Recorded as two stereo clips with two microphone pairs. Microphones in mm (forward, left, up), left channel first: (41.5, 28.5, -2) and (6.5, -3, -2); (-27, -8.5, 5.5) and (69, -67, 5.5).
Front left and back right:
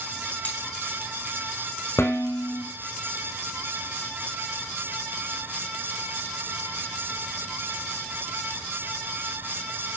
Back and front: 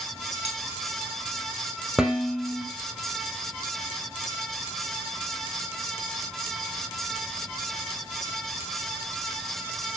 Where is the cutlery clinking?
15° right, 3.5 m.